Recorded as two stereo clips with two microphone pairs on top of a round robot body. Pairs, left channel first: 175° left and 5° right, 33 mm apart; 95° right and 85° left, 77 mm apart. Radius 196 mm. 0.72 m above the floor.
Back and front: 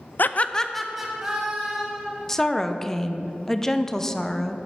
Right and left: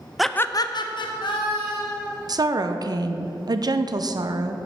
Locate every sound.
0.2 s laughter: 170° left, 0.6 m; by 2.1 s 75° right, 2.5 m
2.3 s a woman speaking: 100° left, 0.8 m